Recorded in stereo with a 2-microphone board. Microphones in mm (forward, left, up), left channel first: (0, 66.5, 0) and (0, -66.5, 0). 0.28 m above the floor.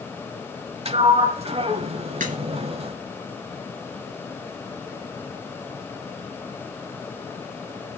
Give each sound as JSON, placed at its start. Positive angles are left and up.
{"t": 0.8, "sound": "a sliding door", "side_deg": -50, "distance_m": 0.7}
{"t": 2.2, "sound": "a crack", "side_deg": -75, "distance_m": 4.0}